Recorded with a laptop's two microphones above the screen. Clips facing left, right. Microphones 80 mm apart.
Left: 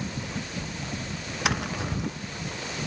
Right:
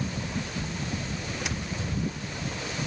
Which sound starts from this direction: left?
Tapping, at 1.4 s.